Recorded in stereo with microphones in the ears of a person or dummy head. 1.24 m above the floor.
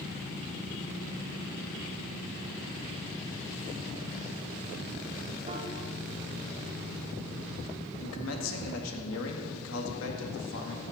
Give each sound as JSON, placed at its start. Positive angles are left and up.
{"t": 5.5, "sound": "a piano", "side_deg": -35, "distance_m": 1.4}
{"t": 8.0, "sound": "a man speaking", "side_deg": 80, "distance_m": 1.9}